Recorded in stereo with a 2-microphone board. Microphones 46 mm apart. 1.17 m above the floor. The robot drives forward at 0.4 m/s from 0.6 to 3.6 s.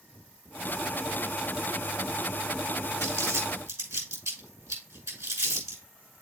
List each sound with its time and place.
3.0 s crumpling: 80° right, 6.5 m; by 5.8 s 85° right, 6.5 m